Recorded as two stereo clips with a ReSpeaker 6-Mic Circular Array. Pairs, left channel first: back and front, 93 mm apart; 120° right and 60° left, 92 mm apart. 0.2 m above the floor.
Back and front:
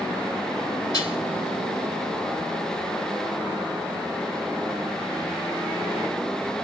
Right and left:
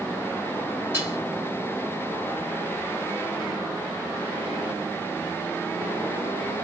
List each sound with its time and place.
0.9 s dishes clattering: 130° left, 3 m